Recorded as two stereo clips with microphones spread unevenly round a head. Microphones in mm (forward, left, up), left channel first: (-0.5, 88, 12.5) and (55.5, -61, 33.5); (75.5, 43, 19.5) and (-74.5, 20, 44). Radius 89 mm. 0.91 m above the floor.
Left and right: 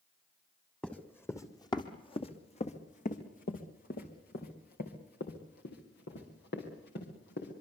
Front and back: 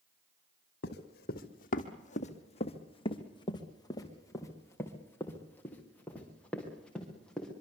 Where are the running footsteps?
25° left, 2 m; by 7.5 s 95° left, 6 m.